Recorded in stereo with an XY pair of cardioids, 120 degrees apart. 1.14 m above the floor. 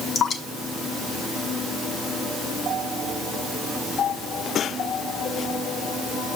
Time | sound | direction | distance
0.1 | dripping | 50° left | 2 m